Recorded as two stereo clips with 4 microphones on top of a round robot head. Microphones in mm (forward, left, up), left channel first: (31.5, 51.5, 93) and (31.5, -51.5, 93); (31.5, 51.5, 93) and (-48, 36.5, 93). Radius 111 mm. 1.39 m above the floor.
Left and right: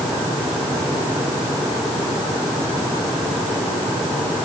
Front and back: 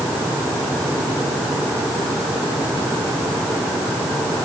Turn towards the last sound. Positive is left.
No sound to turn to.